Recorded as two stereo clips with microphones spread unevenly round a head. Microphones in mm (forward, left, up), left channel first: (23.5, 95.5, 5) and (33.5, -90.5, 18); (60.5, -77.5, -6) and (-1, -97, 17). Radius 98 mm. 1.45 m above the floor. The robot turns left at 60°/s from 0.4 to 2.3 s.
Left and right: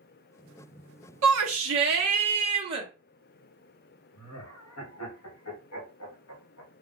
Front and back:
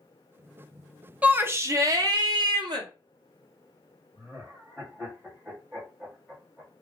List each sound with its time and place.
1.2 s a shout: 90° right, 0.9 m; by 2.9 s 155° right, 0.9 m
4.2 s laughter: 115° left, 1.2 m